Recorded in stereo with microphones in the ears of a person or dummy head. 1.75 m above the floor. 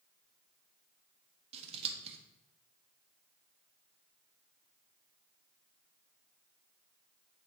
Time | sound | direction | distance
1.5 | scissors | 35° right (ahead or behind) | 0.9 m